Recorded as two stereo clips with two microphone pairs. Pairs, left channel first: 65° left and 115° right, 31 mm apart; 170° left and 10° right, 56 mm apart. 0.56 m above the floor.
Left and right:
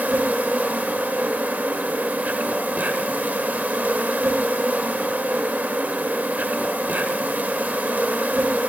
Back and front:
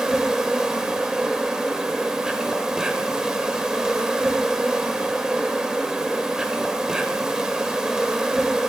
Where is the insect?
85° right, 0.9 m.